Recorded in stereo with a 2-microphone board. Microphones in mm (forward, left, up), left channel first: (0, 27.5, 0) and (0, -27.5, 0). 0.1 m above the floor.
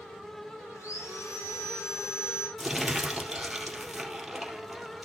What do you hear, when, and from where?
0.8 s sawing: 65° left (ahead or behind), 4.5 m
2.6 s crumpling: centre (ahead or behind), 2 m